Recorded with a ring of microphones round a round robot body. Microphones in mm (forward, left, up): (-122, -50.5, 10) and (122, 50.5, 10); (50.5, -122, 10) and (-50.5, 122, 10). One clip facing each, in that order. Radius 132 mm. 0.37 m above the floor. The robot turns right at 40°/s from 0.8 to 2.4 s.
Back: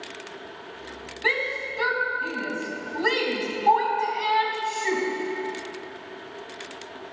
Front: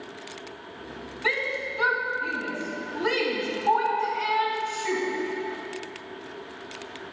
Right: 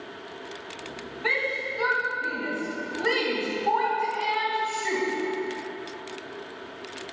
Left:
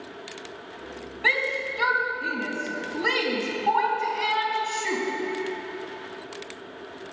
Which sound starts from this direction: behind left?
A shout, at 1.2 s.